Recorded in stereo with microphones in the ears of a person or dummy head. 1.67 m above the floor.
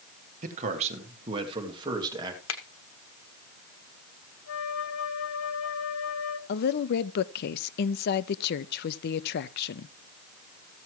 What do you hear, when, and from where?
0.4 s a man speaking: 45° right (ahead or behind), 1.7 m; by 2.4 s 20° right (ahead or behind), 2.5 m
2.5 s a finger snap: 75° left (ahead or behind), 1.1 m
4.5 s a flute: 75° left (ahead or behind), 1.1 m
6.5 s a woman speaking: 60° left (ahead or behind), 0.6 m